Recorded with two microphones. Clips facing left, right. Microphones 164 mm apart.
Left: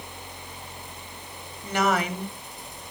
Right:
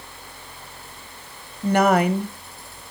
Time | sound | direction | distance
1.6 | a woman speaking | 55° right (ahead or behind) | 1.4 m